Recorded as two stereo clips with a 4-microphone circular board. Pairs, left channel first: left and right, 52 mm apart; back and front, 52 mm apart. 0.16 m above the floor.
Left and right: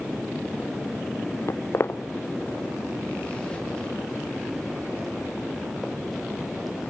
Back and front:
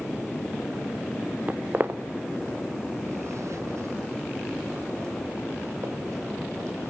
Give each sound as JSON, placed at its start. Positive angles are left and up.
{"t": 1.5, "sound": "footsteps", "azimuth_deg": 60, "distance_m": 1.0}